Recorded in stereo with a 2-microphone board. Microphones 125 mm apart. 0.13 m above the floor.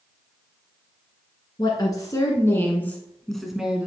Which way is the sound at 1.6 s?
35° left (ahead or behind).